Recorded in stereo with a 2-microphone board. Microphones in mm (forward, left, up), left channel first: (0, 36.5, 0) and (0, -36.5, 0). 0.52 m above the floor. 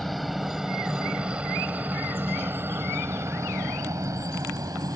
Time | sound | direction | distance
0.0 | a helicopter | centre (ahead or behind) | ?